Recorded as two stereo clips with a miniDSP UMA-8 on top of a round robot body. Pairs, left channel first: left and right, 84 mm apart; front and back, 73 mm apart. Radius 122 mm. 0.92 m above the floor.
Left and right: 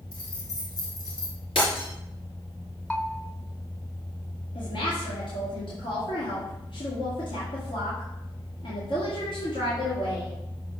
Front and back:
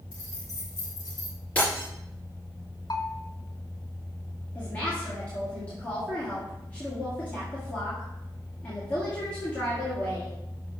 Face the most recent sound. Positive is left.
turn(degrees=75)